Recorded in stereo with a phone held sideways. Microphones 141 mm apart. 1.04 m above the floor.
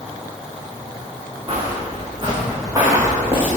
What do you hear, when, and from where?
1.5 s footsteps: 40° right (ahead or behind), 5 m; by 3.5 s 20° right (ahead or behind), 5.5 m